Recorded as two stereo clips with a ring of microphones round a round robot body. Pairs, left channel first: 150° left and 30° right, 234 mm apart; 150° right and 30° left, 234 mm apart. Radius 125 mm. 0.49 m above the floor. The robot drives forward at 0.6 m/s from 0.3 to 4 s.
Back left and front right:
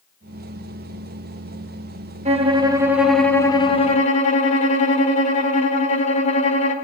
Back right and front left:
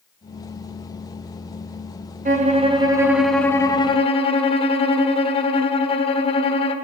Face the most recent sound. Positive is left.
turn(degrees=170)